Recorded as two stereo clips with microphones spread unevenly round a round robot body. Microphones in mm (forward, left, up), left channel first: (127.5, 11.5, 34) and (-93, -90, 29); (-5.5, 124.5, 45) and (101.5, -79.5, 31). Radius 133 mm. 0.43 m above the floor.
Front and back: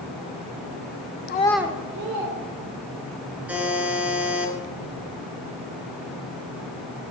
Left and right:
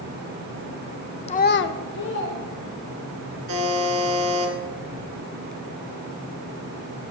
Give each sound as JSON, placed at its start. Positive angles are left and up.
{"t": 1.3, "sound": "a child speaking", "azimuth_deg": 60, "distance_m": 0.6}
{"t": 3.5, "sound": "a buzzer", "azimuth_deg": -70, "distance_m": 2.5}